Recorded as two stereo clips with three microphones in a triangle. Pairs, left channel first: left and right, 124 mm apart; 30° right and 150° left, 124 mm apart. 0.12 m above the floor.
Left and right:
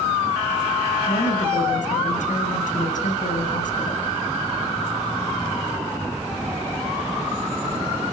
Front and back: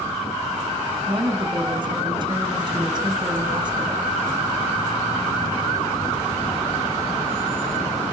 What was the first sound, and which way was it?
A woman speaking, 95° left.